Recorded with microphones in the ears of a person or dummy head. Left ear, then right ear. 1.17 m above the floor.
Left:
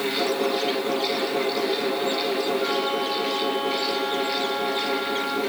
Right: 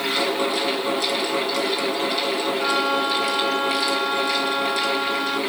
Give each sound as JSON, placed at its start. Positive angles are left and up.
{"t": 0.0, "sound": "a fan", "side_deg": -40, "distance_m": 2.0}
{"t": 2.6, "sound": "a violin", "side_deg": -55, "distance_m": 1.7}